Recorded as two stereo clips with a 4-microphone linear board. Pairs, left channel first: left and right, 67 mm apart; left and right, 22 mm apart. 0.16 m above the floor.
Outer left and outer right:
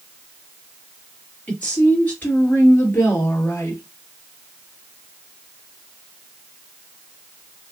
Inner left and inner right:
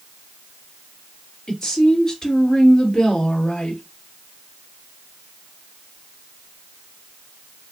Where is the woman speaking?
20° left (ahead or behind), 3 m; by 3.8 s 40° left (ahead or behind), 2.5 m.